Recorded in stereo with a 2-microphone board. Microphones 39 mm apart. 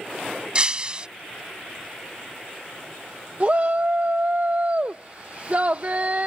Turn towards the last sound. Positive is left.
turn(degrees=-40)  # may be behind; listen again after turning